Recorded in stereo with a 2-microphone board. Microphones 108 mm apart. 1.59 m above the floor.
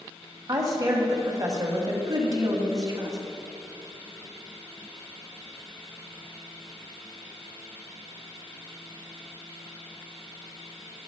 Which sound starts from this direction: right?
A woman speaking, at 0.5 s.